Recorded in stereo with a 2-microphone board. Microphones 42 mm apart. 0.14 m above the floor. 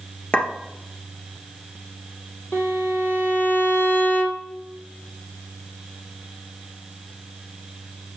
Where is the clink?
30° left (ahead or behind), 1.3 m.